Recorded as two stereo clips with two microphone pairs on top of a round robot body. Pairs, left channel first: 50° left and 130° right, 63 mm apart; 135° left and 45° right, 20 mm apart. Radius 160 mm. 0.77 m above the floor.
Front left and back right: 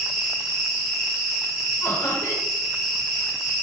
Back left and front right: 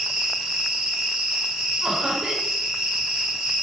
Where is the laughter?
Straight ahead, 1.2 m.